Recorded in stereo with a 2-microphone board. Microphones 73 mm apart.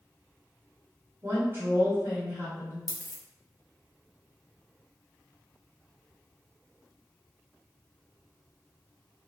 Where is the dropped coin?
50° right (ahead or behind), 0.6 m.